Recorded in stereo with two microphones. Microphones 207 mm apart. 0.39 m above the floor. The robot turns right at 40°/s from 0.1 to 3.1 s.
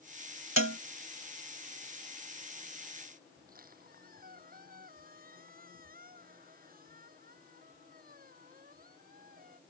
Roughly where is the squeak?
Right.